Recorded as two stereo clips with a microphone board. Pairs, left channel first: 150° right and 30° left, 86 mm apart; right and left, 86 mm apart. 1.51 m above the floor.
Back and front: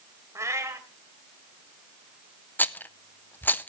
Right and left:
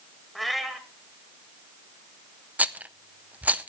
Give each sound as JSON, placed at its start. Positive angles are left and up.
{"t": 0.3, "sound": "a cat meowing", "azimuth_deg": 0, "distance_m": 1.5}
{"t": 2.6, "sound": "a rattle", "azimuth_deg": 155, "distance_m": 0.5}